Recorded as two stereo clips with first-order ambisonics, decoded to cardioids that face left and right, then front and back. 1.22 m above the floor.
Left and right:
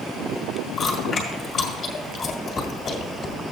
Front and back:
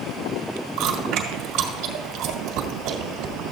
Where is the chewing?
155° left, 1.7 m.